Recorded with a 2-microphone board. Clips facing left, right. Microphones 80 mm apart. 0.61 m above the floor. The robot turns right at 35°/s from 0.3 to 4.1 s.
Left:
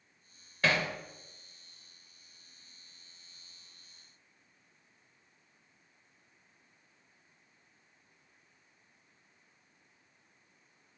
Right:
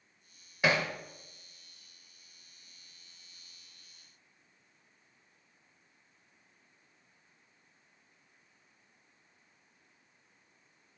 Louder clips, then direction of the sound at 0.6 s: Right 1 dB; 15° right (ahead or behind).